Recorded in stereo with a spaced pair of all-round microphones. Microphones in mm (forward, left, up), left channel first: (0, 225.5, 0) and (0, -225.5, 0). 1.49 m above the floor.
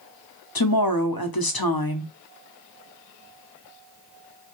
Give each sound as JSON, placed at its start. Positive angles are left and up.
{"t": 0.6, "sound": "a woman speaking", "side_deg": 50, "distance_m": 0.8}